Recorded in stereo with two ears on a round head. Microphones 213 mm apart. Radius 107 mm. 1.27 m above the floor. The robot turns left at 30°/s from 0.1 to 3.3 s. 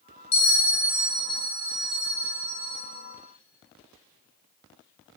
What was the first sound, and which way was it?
A bell, 25° left.